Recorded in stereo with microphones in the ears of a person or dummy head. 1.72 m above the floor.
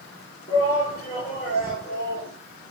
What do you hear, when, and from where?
0.5 s a shout: 45° left (ahead or behind), 4.5 m